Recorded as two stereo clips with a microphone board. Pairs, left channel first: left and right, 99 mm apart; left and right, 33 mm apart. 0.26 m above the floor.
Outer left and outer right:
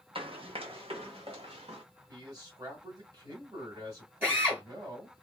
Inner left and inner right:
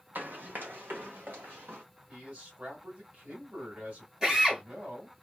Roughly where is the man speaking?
Right.